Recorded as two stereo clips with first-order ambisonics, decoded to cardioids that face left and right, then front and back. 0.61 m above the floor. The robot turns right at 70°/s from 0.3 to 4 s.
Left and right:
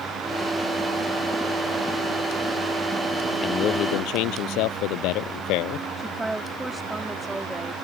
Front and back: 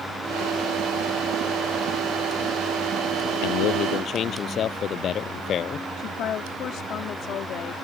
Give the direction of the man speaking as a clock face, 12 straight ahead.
11 o'clock.